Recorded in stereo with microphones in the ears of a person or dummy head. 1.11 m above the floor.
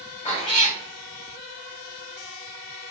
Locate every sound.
0.2 s a cat meowing: 35° left (ahead or behind), 1.1 m